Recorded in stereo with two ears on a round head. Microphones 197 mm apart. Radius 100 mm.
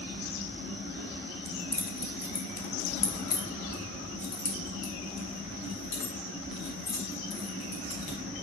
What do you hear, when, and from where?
1.4 s keys jangling: 5° left (ahead or behind), 1.4 m; by 8.2 s 85° left, 5 m